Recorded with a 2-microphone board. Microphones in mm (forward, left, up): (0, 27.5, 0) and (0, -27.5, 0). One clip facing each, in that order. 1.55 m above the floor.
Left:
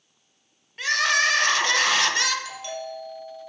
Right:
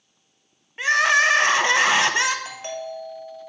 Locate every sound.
0.8 s crying: 20° right (ahead or behind), 0.7 m
2.5 s a doorbell: 40° right (ahead or behind), 2 m